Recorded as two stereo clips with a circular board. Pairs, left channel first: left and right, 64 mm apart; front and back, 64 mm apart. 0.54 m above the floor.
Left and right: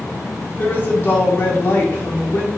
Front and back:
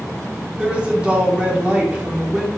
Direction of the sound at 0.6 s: 120° left.